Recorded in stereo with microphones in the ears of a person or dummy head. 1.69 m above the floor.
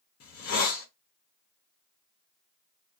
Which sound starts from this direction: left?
A hiss, at 0.2 s.